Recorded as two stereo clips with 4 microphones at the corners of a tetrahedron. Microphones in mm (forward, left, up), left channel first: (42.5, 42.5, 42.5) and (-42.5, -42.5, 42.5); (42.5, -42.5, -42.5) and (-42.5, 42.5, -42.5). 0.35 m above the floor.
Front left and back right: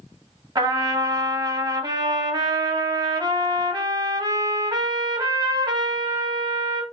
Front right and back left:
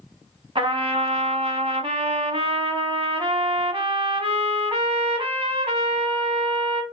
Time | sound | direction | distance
0.6 | a trumpet | 175° left | 0.6 m